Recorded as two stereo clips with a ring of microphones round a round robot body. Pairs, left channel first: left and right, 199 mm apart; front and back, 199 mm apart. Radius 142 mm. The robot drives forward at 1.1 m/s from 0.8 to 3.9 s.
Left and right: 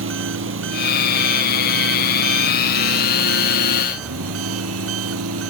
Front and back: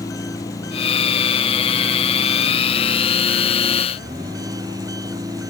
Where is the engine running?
80° right; by 5.5 s 100° right.